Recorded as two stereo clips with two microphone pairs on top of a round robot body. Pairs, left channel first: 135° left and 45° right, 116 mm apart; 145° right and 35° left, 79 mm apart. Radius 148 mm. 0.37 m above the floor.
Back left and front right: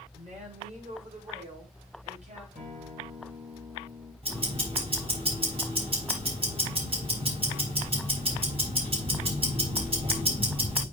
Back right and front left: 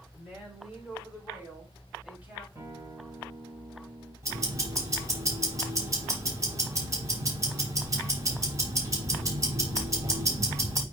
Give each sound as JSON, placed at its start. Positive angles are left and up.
{"t": 0.1, "sound": "a woman speaking", "azimuth_deg": -55, "distance_m": 5.0}
{"t": 2.5, "sound": "a guitar", "azimuth_deg": -20, "distance_m": 4.0}
{"t": 4.2, "sound": "ticking", "azimuth_deg": -15, "distance_m": 3.5}